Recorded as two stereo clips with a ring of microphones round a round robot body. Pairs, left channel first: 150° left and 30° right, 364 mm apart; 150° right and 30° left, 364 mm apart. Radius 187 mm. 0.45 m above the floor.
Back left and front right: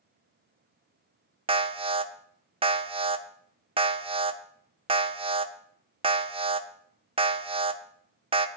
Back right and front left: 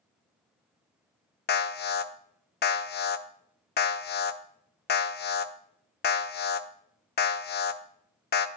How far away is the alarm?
About 0.6 m.